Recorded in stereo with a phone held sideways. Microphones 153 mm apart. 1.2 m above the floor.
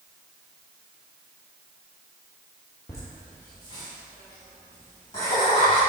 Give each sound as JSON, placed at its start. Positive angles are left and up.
{"t": 2.9, "sound": "laughter", "side_deg": 25, "distance_m": 2.0}